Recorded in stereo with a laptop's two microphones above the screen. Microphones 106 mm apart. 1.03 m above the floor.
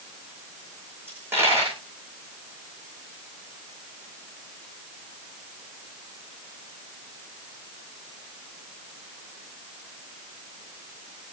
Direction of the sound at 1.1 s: 20° right (ahead or behind).